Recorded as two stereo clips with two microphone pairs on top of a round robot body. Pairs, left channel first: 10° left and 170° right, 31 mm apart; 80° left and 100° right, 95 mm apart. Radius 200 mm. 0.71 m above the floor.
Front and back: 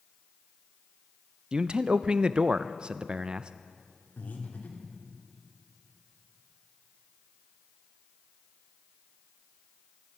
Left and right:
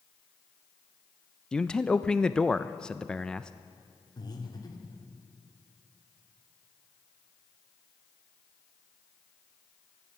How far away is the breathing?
About 2 m.